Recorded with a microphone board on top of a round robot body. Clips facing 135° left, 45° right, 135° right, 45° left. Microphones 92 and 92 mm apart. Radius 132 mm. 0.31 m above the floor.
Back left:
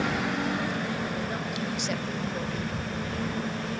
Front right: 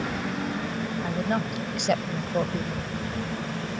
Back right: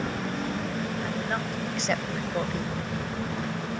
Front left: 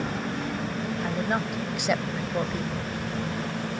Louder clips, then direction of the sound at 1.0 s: Front right 4 dB, front left 3 dB; 25° right.